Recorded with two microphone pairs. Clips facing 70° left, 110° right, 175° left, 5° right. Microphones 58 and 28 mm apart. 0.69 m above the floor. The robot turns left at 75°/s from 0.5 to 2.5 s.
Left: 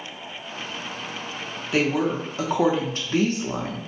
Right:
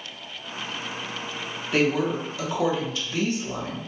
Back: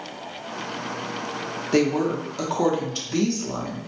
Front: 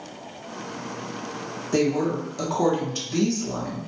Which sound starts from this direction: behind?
A woman speaking, at 1.7 s.